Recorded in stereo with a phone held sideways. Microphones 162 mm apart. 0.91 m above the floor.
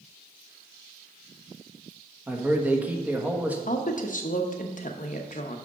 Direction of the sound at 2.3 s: 10° right (ahead or behind).